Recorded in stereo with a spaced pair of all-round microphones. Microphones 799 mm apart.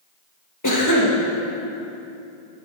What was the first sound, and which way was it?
A cough, 25° left (ahead or behind).